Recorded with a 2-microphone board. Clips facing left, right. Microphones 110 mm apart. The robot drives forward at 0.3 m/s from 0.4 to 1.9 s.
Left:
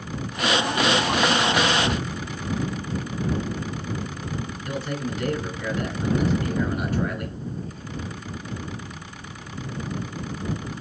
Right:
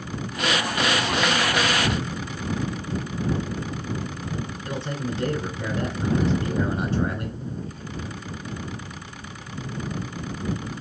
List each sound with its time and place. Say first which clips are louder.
4.7 s a man speaking: left 1 dB; 25° right (ahead or behind), 1.2 m